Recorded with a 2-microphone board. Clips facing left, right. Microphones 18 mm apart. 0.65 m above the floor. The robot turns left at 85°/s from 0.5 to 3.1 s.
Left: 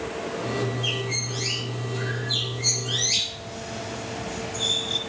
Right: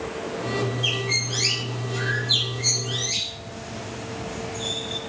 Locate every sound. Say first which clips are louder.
0.8 s a bird: right 3 dB; 20° right (ahead or behind), 5.5 m; by 5.0 s 35° left (ahead or behind), 5.5 m